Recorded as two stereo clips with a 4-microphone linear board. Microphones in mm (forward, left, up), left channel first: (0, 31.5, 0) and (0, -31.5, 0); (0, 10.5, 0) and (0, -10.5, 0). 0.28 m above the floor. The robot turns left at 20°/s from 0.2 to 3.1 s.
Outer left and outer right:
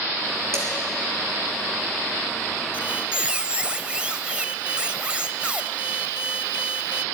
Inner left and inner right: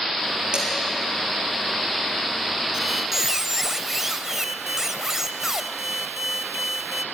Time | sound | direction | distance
0.5 | dishes clattering | 45° right (ahead or behind) | 4 m
2.7 | a squeak | 20° right (ahead or behind) | 0.5 m